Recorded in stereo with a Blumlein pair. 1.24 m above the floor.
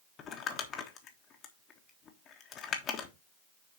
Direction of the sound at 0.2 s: 30° left.